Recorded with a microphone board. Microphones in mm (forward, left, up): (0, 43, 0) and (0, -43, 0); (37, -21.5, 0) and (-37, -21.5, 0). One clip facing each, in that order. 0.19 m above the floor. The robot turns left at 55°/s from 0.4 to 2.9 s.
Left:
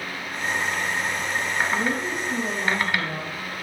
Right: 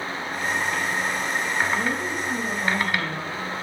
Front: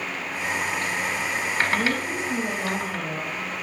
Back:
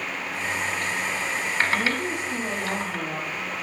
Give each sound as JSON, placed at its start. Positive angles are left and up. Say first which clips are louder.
{"t": 1.7, "sound": "a woman speaking", "louder": "even, front 1 dB", "azimuth_deg": 30, "distance_m": 3.5}